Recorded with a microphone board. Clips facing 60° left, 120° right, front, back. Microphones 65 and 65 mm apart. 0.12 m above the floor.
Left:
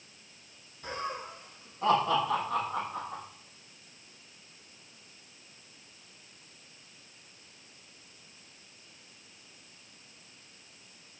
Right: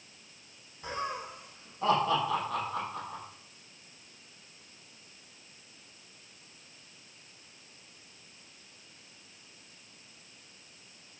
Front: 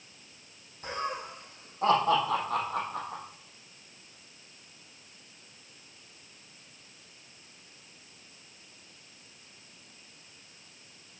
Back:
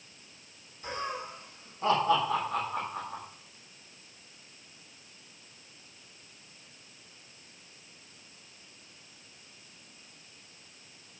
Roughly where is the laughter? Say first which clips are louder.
Right 1 dB, front 1 dB; ahead right.